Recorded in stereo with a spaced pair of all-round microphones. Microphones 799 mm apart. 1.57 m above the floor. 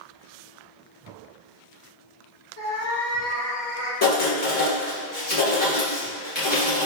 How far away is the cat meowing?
About 1.9 m.